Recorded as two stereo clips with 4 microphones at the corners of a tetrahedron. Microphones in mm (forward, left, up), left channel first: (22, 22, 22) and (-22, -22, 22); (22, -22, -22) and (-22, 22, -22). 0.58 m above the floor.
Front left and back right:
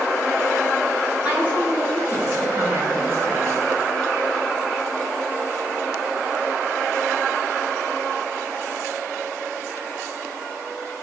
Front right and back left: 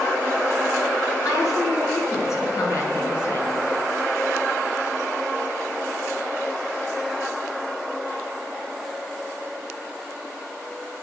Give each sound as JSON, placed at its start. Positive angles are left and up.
{"t": 1.2, "sound": "a woman speaking", "azimuth_deg": -75, "distance_m": 6.5}